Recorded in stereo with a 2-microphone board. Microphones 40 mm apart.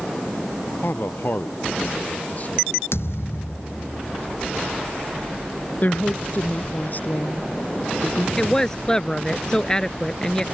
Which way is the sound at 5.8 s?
45° left (ahead or behind).